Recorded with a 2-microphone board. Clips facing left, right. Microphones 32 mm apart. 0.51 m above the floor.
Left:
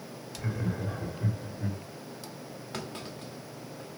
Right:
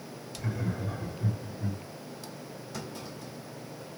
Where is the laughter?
10° left (ahead or behind), 2 m; by 1.8 s 35° left (ahead or behind), 1.7 m.